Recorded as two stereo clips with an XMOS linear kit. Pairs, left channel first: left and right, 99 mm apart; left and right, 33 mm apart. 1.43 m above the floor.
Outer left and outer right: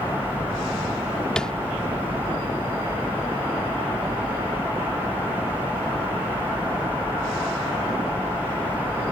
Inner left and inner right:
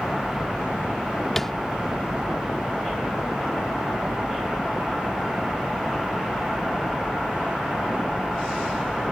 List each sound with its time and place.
1.4 s tapping: 10° left (ahead or behind)